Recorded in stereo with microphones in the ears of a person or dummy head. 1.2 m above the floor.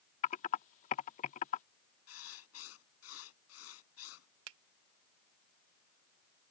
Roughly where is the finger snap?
Right.